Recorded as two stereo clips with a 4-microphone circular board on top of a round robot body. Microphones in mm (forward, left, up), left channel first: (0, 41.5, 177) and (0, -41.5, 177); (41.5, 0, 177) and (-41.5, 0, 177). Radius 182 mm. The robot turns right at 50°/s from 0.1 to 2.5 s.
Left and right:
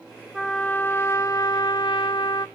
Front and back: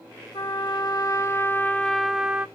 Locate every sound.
0.3 s a trumpet: 5° left, 0.9 m; by 2.5 s 110° left, 0.9 m